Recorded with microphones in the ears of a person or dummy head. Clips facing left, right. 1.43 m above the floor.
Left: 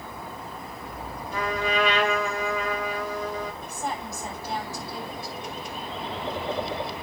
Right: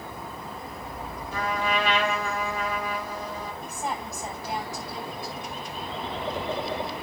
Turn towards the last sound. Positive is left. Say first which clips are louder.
# even
turn(degrees=-10)  # may be behind; listen again after turning